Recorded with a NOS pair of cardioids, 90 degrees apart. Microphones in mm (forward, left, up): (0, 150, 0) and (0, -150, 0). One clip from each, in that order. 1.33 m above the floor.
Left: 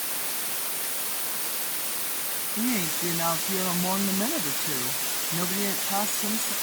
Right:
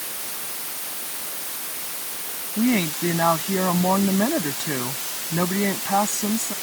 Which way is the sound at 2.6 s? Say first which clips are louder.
Right 7 dB; 60° right.